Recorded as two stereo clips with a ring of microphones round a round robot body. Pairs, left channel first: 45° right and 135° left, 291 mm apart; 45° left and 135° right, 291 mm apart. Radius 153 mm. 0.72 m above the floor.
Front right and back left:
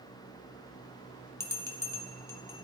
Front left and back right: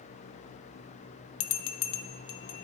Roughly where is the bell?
Ahead left.